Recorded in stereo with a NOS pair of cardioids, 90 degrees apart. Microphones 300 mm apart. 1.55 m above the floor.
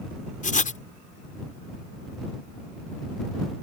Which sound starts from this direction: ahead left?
Writing, at 0.4 s.